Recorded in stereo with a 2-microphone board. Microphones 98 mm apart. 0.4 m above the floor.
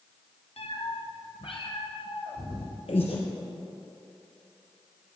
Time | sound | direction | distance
0.6 | a cat meowing | 80° left | 1.3 m
2.9 | breathing | 80° left | 3 m